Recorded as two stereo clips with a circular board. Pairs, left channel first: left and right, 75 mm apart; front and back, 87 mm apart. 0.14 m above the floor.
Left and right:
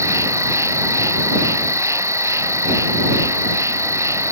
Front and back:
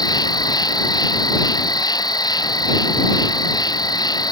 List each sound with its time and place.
0.0 s an insect: 40° right